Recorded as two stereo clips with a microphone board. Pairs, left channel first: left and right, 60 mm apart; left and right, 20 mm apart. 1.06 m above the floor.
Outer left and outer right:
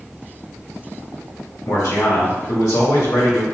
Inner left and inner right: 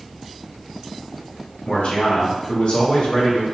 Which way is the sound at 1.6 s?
75° left (ahead or behind).